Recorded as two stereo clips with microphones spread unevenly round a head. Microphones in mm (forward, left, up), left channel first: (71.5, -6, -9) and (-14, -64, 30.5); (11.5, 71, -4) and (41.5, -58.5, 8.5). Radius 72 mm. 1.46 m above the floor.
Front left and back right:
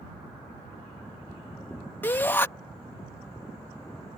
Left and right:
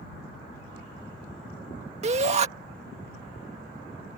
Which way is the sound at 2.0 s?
35° right.